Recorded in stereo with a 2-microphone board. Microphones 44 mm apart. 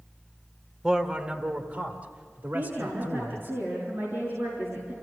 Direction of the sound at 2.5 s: 55° right (ahead or behind).